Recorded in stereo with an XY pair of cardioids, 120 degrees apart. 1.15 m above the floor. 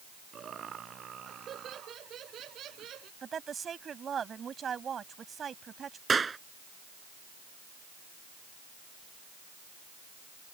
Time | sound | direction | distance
0.3 | laughter | 45° right | ?
3.2 | a woman speaking | 40° right | ?
6.1 | a clap | 25° right | ?